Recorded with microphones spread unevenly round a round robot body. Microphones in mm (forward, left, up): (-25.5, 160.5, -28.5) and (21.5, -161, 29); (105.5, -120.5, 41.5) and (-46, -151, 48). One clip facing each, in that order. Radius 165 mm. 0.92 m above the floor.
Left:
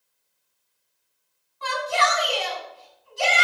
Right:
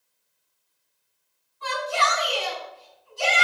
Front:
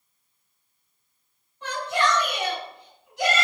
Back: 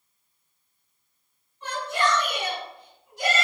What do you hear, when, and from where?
1.6 s a shout: 70° left, 6.5 m